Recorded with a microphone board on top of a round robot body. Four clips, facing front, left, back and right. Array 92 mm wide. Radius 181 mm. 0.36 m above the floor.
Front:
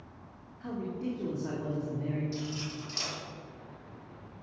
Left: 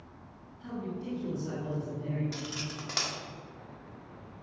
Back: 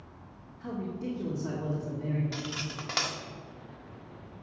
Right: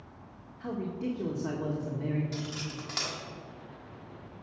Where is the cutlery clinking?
170° left, 1.3 m.